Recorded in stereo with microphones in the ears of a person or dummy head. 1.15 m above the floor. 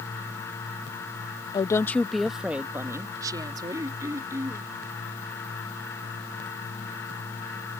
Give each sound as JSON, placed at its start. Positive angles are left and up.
{"t": 1.5, "sound": "a woman speaking", "side_deg": 25}
{"t": 3.7, "sound": "throat clearing", "side_deg": -15}